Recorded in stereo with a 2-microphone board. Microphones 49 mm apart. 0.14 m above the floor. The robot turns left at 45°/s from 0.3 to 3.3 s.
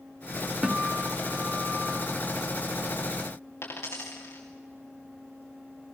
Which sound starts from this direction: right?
A guitar, at 0.6 s.